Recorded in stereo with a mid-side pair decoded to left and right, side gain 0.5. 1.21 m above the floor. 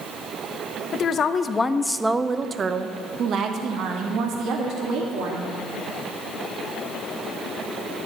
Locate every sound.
0.9 s a woman speaking: 55° left, 0.9 m; by 5.5 s 75° right, 2.5 m